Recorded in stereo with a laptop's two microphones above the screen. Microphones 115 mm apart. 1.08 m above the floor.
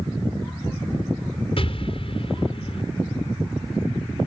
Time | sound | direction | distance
1.6 | an explosion | 55° left (ahead or behind) | ?